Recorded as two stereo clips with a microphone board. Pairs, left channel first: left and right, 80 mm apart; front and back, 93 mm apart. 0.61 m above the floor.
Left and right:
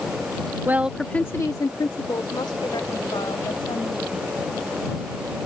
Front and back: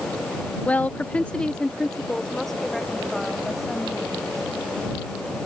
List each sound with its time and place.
0.7 s a woman speaking: 60° right; by 4.5 s 90° left